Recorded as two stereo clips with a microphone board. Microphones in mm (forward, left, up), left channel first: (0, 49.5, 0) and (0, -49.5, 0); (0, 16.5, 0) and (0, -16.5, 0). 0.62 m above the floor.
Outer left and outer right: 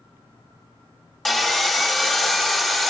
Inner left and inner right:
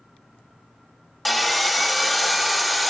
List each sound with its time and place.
1.2 s sawing: 5° left (ahead or behind), 0.9 m